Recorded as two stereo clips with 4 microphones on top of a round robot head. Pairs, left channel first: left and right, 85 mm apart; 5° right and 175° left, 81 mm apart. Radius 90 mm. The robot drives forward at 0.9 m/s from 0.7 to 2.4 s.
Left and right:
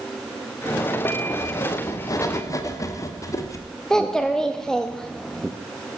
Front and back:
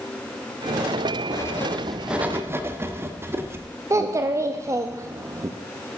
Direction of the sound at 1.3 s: 40° left.